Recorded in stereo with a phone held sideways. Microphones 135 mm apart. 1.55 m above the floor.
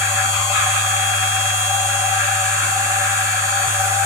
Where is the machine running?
20° right (ahead or behind), 4.5 m.